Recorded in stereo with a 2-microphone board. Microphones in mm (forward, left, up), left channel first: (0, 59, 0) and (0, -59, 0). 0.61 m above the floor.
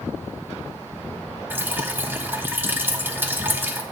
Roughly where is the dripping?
Centre.